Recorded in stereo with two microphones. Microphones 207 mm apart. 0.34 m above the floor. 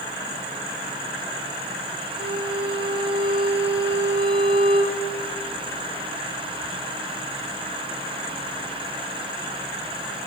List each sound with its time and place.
2.2 s a violin: 50° right (ahead or behind), 2 m